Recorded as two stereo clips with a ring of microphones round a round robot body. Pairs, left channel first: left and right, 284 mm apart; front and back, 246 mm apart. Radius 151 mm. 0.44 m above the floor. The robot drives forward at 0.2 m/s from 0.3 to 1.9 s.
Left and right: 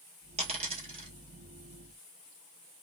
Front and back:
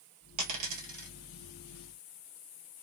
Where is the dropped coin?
160° right, 1.2 m.